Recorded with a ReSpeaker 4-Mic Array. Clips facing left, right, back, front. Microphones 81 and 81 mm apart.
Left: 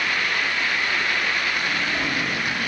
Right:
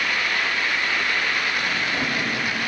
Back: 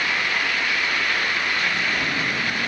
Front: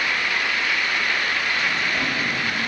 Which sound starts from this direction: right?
A drawer, at 1.6 s.